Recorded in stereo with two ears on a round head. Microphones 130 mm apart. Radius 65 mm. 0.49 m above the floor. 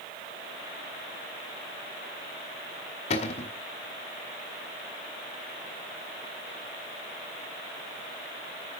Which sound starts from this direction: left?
A cupboard door, at 3.1 s.